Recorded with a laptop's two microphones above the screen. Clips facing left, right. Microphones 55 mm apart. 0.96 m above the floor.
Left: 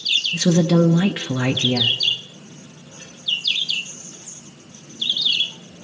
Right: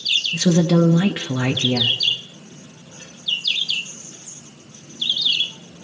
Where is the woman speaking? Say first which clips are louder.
Even; 5° right (ahead or behind), 0.7 m.